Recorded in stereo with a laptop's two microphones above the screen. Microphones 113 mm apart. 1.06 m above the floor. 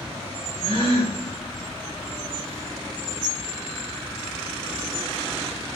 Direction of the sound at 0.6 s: 40° right (ahead or behind).